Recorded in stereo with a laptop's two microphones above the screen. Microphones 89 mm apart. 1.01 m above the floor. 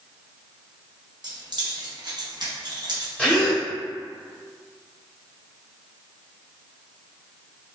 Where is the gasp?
15° left (ahead or behind), 1.4 m.